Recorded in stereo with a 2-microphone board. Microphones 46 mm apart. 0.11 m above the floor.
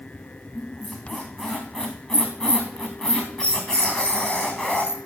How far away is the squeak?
About 2.5 m.